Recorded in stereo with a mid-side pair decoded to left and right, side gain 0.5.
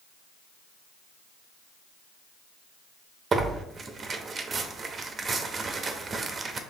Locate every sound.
3.3 s tearing paper: 35° right, 0.7 m